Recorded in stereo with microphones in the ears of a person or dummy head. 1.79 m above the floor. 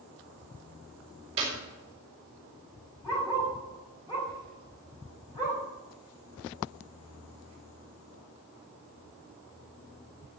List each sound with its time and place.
1.4 s a clap: 25° right (ahead or behind), 4 m
3.0 s a dog barking: 20° left (ahead or behind), 4.5 m